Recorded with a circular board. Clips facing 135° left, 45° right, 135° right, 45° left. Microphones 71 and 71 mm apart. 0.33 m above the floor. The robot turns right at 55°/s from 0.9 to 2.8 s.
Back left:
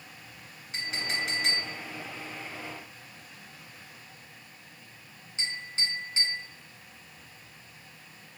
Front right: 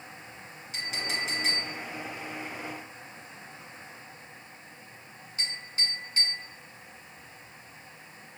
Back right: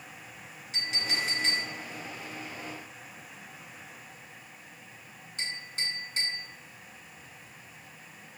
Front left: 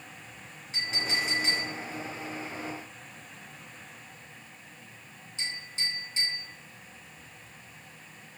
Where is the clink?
90° left, 2.5 m; by 6.4 s 165° right, 2.5 m.